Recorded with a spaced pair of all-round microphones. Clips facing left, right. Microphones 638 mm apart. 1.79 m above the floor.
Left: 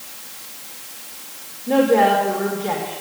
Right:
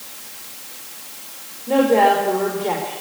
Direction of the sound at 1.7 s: 40° left (ahead or behind).